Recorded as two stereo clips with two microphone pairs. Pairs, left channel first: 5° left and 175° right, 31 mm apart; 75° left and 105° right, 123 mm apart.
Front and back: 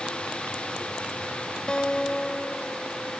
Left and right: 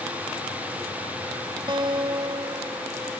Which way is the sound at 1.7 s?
55° right.